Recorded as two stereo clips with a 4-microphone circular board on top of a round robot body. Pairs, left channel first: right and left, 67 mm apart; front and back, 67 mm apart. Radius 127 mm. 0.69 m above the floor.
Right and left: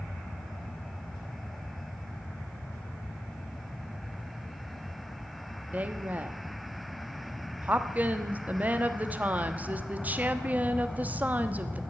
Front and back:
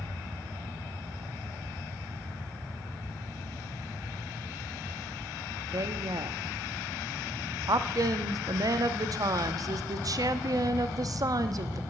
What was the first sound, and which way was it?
A woman speaking, 155° left.